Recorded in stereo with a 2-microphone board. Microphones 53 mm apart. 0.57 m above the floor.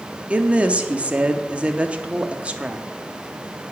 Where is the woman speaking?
20° right (ahead or behind), 0.6 m.